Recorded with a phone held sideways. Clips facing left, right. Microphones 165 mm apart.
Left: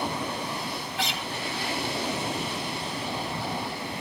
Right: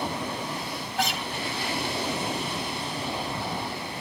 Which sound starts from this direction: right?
A guitar, at 1.0 s.